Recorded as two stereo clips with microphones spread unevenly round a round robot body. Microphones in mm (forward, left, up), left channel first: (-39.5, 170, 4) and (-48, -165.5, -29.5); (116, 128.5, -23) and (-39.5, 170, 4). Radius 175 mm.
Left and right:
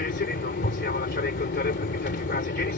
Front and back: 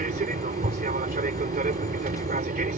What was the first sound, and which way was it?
An aircraft, 145° left.